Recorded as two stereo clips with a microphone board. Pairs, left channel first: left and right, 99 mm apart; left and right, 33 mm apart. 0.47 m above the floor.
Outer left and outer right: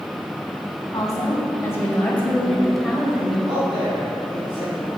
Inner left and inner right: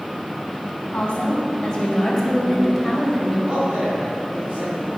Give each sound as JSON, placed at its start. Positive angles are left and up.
{"t": 0.9, "sound": "a woman speaking", "side_deg": 40, "distance_m": 3.0}
{"t": 3.5, "sound": "a man speaking", "side_deg": -45, "distance_m": 3.0}